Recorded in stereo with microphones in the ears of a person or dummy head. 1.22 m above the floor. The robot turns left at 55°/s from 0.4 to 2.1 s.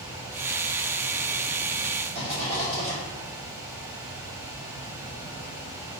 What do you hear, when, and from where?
2.1 s a rattle: 45° right (ahead or behind), 1.9 m